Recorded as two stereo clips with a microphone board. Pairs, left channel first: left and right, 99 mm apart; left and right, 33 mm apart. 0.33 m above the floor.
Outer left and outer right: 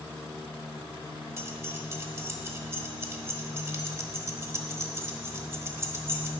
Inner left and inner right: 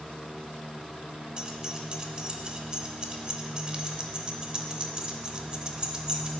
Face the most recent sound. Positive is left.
turn(degrees=-25)  # may be behind; listen again after turning